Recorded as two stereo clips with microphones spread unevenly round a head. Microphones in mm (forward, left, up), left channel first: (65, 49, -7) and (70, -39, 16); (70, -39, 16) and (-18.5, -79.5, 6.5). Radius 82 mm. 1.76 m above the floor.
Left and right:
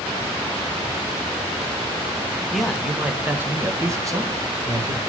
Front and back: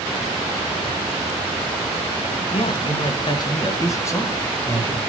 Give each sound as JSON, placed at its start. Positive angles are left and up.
{"t": 2.5, "sound": "a man speaking", "azimuth_deg": 5, "distance_m": 1.7}